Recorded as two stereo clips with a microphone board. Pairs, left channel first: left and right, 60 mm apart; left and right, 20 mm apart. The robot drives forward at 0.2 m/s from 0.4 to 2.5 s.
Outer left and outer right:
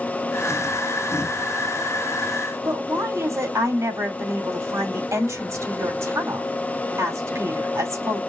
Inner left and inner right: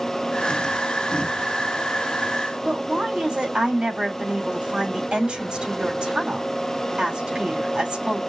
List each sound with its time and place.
2.6 s a woman speaking: 65° right (ahead or behind), 2.5 m